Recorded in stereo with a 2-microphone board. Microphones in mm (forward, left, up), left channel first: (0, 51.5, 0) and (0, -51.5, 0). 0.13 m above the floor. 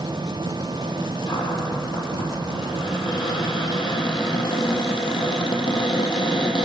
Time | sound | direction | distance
1.3 | a cupboard door | 55° left (ahead or behind) | 4.5 m